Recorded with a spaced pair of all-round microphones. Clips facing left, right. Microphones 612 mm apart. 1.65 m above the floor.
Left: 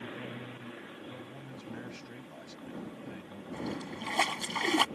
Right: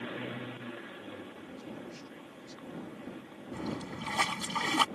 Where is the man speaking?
85° left.